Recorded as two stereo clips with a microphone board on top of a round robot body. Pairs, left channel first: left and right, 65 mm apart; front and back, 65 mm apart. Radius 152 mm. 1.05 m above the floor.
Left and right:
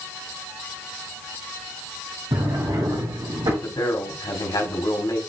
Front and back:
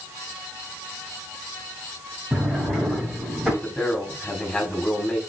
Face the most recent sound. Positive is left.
turn(degrees=70)